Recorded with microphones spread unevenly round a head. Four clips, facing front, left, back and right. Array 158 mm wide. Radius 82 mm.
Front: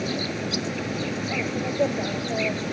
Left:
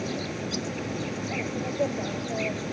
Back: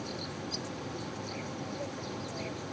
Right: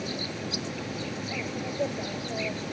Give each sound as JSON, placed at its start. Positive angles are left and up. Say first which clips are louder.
{"t": 0.0, "sound": "an insect", "louder": "left 3 dB, front 11 dB", "azimuth_deg": 15}